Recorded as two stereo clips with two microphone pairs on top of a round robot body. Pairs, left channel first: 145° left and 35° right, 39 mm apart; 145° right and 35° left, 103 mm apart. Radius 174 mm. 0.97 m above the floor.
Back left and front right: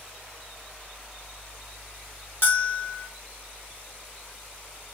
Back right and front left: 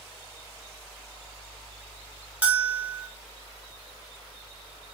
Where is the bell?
110° left, 1.0 m.